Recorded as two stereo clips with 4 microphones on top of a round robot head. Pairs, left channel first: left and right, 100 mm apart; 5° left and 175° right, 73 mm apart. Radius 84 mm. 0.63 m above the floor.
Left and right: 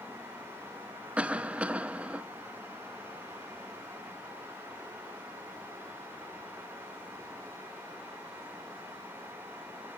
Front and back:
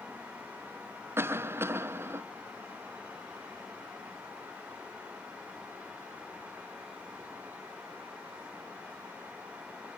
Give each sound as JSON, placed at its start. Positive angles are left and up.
{"t": 1.2, "sound": "a cough", "azimuth_deg": -160, "distance_m": 0.7}